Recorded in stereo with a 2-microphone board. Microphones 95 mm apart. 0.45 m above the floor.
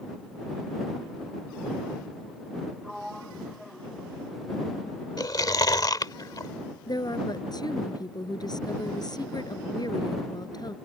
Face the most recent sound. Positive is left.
turn(degrees=50)  # may be behind; listen again after turning